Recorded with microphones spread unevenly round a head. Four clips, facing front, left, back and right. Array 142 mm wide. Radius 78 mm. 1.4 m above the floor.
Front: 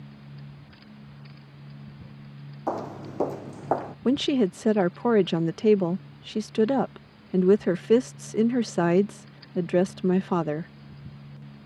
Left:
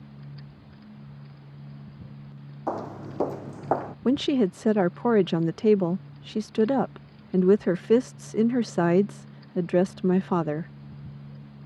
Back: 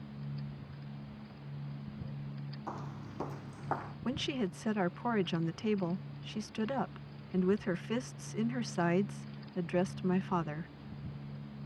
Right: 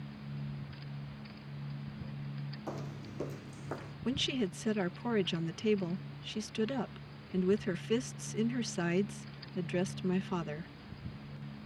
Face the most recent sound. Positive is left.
turn(degrees=45)